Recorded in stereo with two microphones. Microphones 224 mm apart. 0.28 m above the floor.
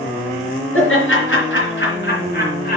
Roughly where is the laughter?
Left.